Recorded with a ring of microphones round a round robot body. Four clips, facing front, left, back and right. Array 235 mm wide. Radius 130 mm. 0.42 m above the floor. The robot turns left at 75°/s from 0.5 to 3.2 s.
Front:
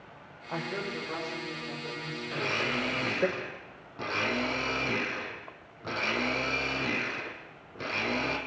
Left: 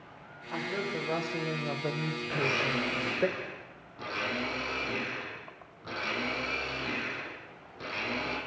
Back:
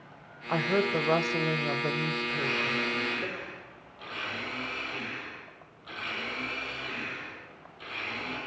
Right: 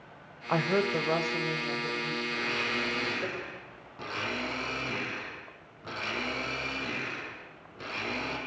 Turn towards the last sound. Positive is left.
turn(degrees=-5)